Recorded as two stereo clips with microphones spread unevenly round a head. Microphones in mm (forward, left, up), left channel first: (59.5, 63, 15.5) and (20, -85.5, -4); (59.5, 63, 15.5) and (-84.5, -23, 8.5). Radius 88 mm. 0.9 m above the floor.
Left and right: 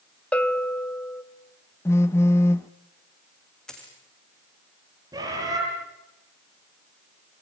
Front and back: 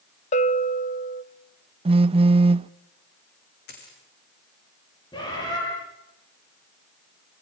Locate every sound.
0.3 s a bell: 10° right, 1.2 m
1.9 s a phone buzzing: 150° left, 0.5 m
3.7 s a dropped coin: 10° right, 6.5 m
5.1 s a bird: 40° right, 9.5 m